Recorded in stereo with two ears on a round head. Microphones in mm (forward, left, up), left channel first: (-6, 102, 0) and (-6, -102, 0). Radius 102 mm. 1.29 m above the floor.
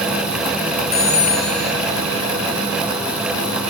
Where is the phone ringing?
45° left (ahead or behind), 7.5 m.